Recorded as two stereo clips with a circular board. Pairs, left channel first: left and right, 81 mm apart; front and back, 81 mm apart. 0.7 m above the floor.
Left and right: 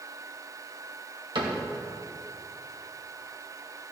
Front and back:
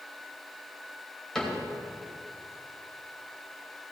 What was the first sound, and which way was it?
A cupboard door, 80° right.